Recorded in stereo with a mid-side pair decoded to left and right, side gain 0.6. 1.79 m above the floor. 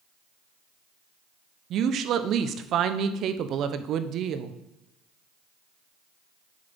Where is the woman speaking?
55° right, 0.9 m.